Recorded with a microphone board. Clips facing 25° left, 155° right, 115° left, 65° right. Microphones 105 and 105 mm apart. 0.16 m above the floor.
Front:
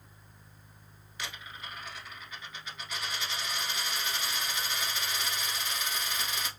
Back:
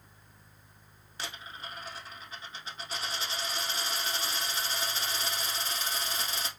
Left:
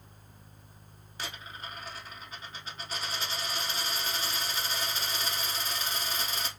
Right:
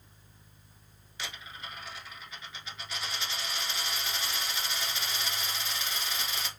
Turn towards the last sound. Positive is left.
turn(degrees=150)